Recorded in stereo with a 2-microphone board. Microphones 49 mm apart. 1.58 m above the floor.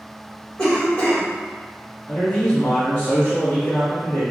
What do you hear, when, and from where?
0.6 s a cough: 35° left (ahead or behind), 2.0 m
2.1 s a man speaking: 35° left (ahead or behind), 1.5 m